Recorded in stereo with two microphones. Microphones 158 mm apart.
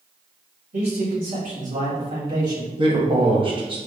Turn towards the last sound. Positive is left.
turn(degrees=-30)  # may be behind; listen again after turning